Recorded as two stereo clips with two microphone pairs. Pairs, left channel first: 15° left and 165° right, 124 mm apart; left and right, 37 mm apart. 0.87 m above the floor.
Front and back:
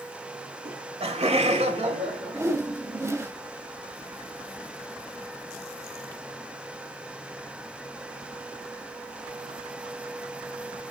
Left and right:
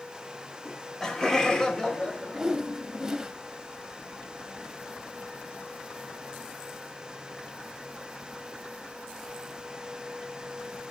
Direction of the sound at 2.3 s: 135° right.